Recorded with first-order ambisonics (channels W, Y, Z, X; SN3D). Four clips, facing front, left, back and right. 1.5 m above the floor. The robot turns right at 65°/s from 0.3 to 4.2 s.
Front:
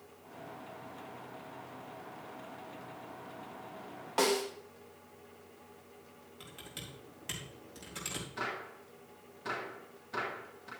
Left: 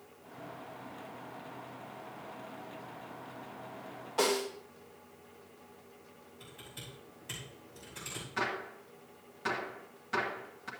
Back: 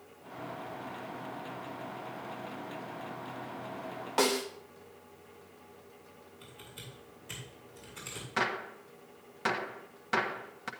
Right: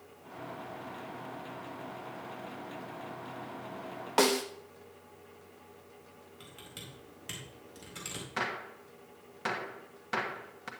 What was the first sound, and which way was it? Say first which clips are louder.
A snare drum: right 3 dB, back 1 dB; 100° right.